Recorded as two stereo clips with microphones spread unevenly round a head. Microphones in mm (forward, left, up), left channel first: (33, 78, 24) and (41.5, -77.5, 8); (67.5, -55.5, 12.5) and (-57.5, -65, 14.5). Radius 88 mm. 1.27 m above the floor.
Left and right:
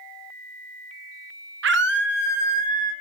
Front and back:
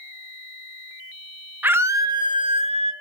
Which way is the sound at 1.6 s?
100° right.